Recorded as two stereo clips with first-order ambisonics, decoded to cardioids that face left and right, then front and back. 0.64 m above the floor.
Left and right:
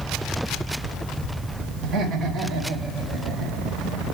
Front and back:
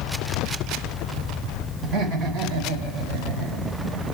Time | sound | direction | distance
1.8 | laughter | 145° right | 2.5 m